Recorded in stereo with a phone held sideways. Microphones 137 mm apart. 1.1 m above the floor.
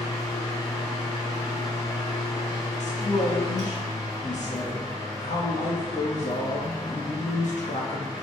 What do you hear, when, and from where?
0.0 s a fan: 30° left (ahead or behind), 2 m
2.8 s a man speaking: 70° left (ahead or behind), 1.5 m